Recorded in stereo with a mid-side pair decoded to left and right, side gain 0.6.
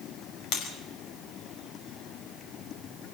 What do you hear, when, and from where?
0.5 s breaking glass: 70° left, 5.5 m